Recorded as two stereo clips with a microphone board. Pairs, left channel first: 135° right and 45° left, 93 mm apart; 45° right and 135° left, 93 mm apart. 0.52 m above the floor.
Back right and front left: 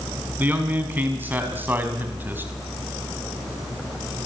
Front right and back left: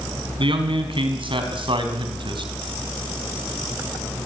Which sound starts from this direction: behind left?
A man speaking, at 0.4 s.